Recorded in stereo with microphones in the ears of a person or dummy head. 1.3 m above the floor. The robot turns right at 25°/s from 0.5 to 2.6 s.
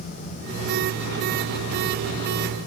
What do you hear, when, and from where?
Only background noise.